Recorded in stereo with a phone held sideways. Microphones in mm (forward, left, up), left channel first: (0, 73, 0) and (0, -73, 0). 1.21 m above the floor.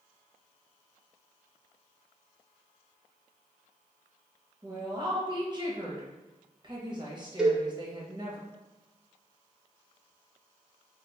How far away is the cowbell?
About 0.5 m.